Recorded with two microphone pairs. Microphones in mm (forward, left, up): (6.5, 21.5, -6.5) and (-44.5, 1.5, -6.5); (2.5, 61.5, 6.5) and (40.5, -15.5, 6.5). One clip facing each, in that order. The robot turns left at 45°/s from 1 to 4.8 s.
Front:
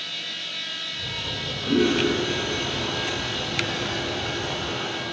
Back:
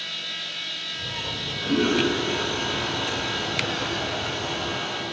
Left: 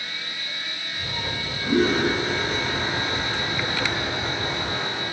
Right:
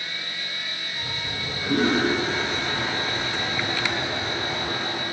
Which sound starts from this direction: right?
A toilet flushing, at 1.2 s.